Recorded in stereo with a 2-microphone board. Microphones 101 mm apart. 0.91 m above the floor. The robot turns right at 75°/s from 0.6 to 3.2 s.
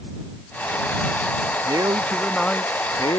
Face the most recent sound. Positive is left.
turn(degrees=65)